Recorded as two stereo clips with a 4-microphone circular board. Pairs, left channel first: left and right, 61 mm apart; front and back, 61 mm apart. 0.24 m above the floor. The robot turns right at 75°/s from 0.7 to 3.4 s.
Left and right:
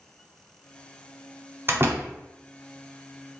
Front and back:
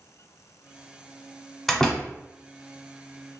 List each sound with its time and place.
1.7 s a door slam: 90° right, 1.0 m; by 2.1 s 60° right, 1.0 m